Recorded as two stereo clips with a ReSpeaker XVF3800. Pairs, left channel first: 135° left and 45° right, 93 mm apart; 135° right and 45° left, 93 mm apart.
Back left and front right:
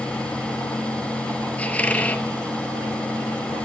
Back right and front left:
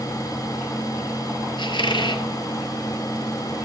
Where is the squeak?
150° right, 0.7 m.